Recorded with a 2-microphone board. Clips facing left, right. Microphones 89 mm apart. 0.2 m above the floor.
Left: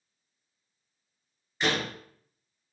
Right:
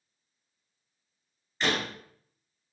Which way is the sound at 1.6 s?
5° left (ahead or behind).